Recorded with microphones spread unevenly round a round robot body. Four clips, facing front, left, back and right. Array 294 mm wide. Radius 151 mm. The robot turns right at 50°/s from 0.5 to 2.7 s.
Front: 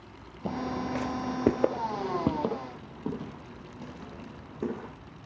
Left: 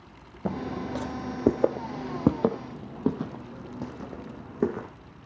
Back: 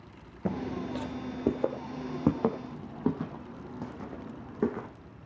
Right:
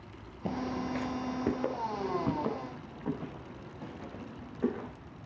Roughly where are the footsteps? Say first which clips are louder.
Left 2 dB, front 1 dB; behind left.